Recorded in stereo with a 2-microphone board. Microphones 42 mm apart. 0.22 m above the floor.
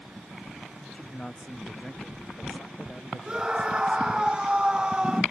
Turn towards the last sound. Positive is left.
turn(degrees=-20)  # may be behind; listen again after turning